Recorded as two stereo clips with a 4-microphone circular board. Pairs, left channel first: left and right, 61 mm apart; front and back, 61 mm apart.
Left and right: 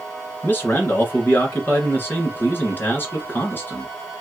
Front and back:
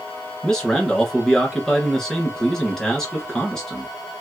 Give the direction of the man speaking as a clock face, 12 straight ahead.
9 o'clock.